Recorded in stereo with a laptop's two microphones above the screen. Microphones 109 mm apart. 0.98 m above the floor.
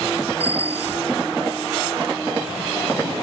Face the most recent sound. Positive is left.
turn(degrees=-65)  # may be behind; listen again after turning